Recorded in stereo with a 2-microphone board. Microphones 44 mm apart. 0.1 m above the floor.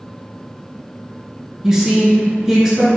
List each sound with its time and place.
1.6 s a woman speaking: 15° right (ahead or behind), 1.1 m